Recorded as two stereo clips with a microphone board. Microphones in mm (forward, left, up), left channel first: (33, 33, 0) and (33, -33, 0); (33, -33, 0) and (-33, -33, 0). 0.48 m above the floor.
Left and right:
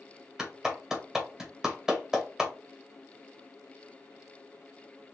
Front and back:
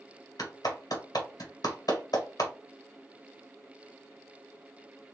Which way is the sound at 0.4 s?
10° right.